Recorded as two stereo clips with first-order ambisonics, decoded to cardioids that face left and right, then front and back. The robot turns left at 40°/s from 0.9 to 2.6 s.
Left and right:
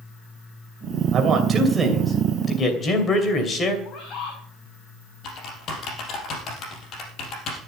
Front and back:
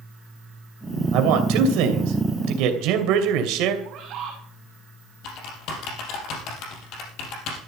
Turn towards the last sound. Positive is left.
turn(degrees=40)